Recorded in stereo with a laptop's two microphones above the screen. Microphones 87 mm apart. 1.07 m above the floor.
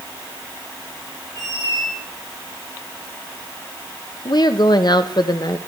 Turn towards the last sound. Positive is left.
turn(degrees=55)  # may be behind; listen again after turning